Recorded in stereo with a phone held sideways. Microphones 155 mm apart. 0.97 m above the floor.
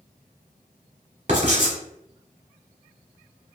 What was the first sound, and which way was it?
Writing, 50° right (ahead or behind).